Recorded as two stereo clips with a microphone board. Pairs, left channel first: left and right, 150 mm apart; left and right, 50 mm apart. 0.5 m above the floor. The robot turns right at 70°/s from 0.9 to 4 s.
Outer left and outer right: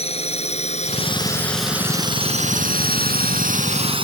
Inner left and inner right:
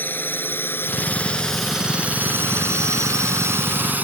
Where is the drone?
40° left (ahead or behind); by 4.0 s 35° right (ahead or behind).